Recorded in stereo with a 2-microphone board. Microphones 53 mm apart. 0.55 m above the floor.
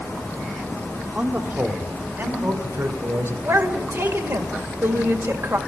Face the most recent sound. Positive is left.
turn(degrees=-60)  # may be behind; listen again after turning